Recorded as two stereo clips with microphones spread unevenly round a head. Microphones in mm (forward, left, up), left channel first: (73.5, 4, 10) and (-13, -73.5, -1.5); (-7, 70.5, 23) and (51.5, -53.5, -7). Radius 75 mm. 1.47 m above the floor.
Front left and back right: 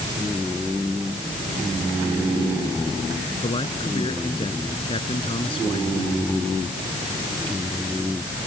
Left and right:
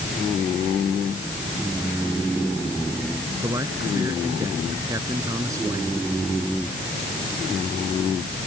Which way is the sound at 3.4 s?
Straight ahead.